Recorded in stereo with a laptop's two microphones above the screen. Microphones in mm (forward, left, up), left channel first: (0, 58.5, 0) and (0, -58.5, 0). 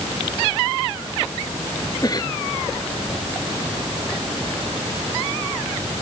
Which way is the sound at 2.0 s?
35° left (ahead or behind).